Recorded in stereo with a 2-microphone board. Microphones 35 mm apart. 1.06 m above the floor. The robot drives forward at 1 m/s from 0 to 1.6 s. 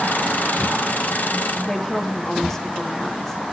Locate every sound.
1.6 s a woman speaking: 15° left (ahead or behind), 2 m